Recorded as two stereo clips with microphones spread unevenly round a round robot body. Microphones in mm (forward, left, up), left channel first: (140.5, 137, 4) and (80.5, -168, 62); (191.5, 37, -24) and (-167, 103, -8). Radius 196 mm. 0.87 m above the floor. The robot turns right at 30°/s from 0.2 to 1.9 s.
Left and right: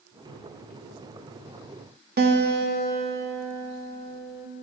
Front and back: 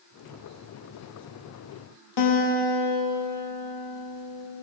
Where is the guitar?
40° right, 2 m.